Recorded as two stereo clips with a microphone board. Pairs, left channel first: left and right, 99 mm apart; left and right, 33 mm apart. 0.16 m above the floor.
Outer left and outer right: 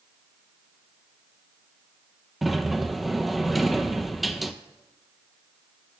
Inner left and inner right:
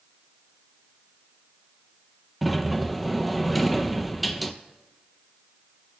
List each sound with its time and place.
2.4 s a sliding door: centre (ahead or behind), 0.7 m